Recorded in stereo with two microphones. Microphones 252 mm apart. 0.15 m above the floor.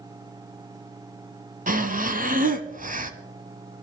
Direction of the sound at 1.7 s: 35° right (ahead or behind).